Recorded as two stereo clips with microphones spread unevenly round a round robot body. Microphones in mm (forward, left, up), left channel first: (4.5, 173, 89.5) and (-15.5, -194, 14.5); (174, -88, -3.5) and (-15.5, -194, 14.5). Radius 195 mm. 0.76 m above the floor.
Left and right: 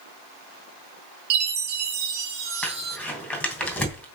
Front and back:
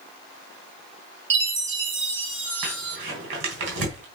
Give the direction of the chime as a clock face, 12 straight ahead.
4 o'clock.